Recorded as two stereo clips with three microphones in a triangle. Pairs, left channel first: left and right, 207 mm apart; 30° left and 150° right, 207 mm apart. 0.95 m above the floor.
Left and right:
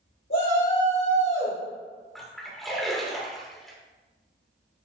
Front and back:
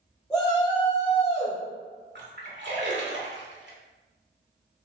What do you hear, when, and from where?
0.3 s a shout: 115° left, 2 m; by 1.6 s 70° left, 1.0 m
2.1 s a splash: straight behind, 1.7 m